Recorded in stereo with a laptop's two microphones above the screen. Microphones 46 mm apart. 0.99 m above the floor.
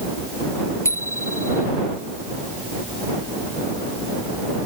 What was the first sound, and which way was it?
A bicycle bell, 85° left.